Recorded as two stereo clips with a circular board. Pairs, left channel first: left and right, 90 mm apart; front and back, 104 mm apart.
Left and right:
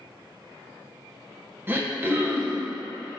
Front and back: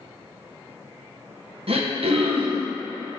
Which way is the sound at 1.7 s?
155° right.